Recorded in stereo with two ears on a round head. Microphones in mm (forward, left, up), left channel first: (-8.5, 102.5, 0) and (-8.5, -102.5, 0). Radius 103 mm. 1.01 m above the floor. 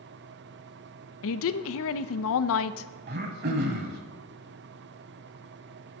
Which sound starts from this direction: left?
A woman speaking, at 1.2 s.